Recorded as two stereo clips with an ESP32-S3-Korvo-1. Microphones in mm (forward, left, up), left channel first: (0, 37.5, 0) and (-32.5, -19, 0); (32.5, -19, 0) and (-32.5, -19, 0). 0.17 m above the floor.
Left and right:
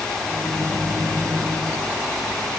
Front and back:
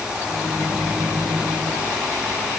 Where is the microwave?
135° left, 4 m.